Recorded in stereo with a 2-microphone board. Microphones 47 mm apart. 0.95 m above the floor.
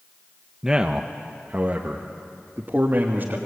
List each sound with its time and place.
0.6 s a man speaking: 15° right (ahead or behind), 0.8 m; by 3.4 s 45° right (ahead or behind), 1.9 m